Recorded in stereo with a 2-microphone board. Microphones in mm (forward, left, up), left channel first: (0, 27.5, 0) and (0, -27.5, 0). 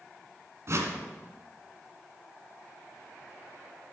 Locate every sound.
0.7 s a whoosh: 55° right (ahead or behind), 1.3 m